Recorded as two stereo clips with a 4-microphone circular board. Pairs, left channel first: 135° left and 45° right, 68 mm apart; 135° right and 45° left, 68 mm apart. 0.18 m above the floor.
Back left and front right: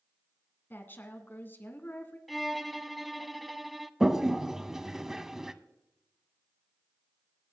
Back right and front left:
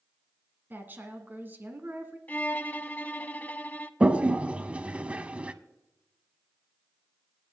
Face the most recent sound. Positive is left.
turn(degrees=25)